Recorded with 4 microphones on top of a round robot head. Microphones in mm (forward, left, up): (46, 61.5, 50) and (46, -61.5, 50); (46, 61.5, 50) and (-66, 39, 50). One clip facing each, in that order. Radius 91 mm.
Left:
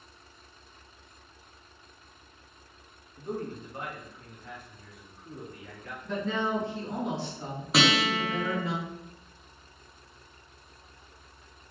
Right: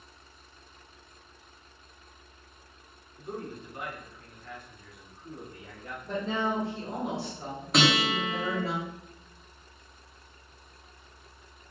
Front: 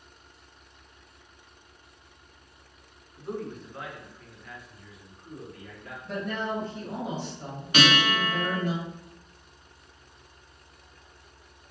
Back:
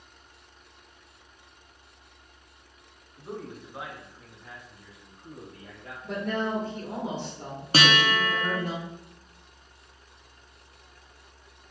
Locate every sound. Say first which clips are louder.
3.2 s a man speaking: left 3 dB, front 4 dB; 105° left, 1.4 m; by 5.9 s 125° right, 1.3 m
6.0 s a woman speaking: even, back 2 dB; 160° right, 1.8 m
7.7 s a guitar: even, even; straight behind, 1.0 m